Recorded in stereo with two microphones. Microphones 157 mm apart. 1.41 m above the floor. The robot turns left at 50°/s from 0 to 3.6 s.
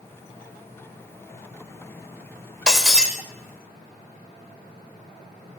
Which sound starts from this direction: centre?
Breaking glass, at 2.7 s.